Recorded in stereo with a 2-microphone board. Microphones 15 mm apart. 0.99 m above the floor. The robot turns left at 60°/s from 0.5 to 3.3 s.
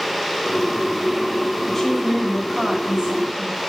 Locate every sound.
1.6 s a woman speaking: 15° left, 5 m; by 3.6 s 85° right, 5 m